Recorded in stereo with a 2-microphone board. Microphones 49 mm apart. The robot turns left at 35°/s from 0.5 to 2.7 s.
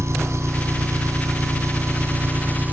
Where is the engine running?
65° right; by 2.7 s 145° right.